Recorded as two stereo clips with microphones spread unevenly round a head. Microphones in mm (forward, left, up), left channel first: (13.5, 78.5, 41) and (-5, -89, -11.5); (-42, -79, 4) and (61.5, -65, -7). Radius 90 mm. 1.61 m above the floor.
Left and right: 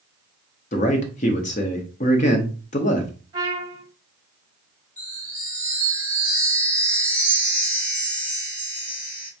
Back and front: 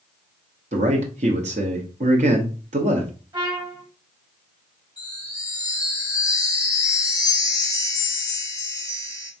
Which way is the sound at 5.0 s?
140° left.